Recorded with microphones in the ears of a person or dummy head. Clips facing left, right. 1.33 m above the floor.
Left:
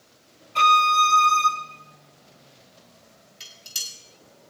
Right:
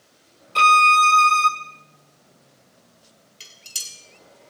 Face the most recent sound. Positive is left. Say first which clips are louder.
# left 1 dB
turn(degrees=-20)  # may be behind; listen again after turning